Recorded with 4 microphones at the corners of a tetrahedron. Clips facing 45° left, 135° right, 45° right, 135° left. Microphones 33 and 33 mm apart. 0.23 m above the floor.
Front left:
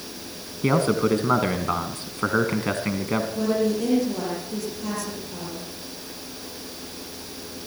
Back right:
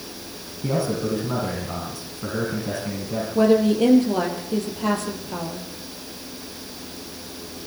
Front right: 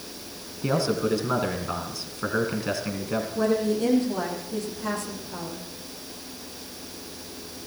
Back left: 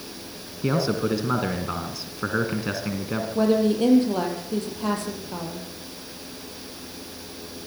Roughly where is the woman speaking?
Behind.